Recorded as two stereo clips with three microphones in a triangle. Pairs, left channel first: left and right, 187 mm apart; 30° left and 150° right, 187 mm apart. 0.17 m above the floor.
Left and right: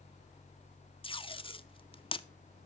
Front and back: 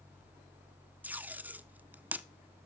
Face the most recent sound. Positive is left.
turn(degrees=135)